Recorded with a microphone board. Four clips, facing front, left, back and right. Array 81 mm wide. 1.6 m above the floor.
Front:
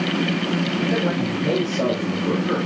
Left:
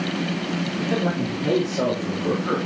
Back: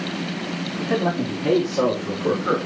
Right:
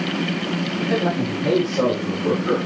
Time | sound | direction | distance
0.8 | a man speaking | 135° right | 4 m